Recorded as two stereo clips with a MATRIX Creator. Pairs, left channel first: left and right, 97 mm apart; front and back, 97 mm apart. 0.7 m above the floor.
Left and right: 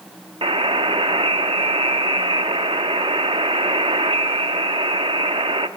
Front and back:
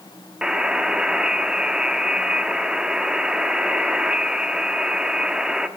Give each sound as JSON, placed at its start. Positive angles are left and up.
{"t": 0.4, "sound": "a buzzer", "azimuth_deg": -100, "distance_m": 0.6}